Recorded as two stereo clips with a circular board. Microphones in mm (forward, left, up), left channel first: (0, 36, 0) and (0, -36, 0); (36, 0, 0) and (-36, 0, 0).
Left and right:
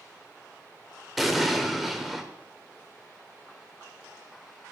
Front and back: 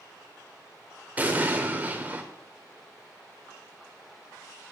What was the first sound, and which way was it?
An explosion, 175° right.